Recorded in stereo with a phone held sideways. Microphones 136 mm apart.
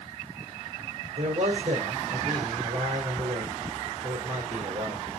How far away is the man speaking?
About 3.5 m.